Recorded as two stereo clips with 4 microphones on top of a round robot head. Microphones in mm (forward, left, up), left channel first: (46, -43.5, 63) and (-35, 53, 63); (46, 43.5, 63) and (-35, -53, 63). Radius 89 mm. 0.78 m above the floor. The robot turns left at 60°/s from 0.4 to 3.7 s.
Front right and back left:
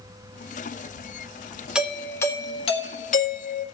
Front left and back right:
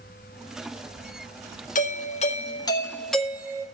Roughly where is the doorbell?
Ahead left.